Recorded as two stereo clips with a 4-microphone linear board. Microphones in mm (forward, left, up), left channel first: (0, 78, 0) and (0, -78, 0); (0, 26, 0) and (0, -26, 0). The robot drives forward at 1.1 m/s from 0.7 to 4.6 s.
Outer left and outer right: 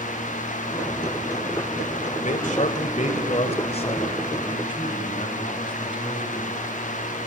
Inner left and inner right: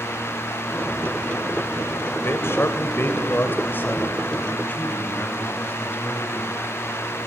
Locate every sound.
2.2 s a man speaking: 55° left (ahead or behind), 2 m; by 6.6 s 30° left (ahead or behind), 3.5 m